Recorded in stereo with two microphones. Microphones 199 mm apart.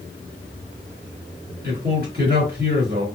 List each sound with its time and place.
1.6 s a man speaking: 50° right (ahead or behind), 2.5 m